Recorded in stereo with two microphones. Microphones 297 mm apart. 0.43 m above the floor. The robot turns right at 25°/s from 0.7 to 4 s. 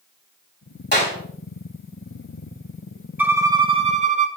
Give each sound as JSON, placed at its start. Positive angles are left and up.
{"t": 0.9, "sound": "a clap", "side_deg": 35, "distance_m": 3.5}
{"t": 3.2, "sound": "a violin", "side_deg": -5, "distance_m": 0.9}